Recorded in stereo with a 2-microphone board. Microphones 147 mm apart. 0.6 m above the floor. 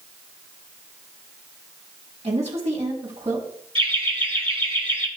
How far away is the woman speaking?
About 5.5 m.